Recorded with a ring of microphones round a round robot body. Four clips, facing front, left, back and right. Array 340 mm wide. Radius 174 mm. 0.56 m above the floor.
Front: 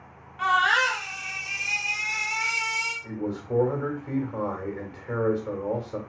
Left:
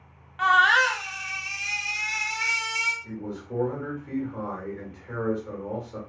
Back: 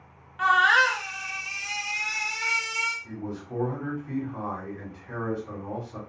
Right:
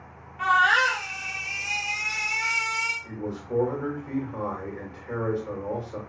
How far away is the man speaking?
About 1.8 m.